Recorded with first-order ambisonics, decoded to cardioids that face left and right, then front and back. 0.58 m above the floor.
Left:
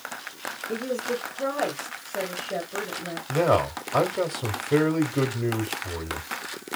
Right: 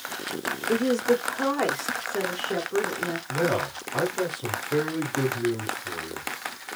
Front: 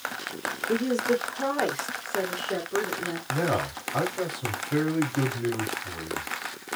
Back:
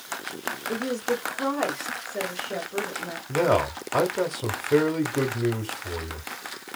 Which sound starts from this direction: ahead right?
A woman speaking, at 0.7 s.